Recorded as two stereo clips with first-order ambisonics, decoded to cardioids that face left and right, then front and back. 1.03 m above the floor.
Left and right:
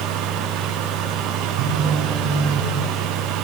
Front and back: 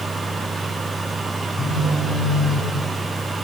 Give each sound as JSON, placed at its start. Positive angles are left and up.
{"t": 1.6, "sound": "a phone buzzing", "azimuth_deg": -65, "distance_m": 9.0}